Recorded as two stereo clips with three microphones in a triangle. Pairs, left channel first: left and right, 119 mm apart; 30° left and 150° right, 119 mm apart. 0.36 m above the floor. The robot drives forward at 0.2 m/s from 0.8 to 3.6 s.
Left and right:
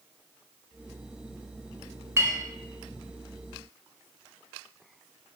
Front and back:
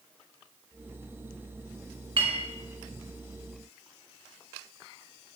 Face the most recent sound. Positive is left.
turn(degrees=-160)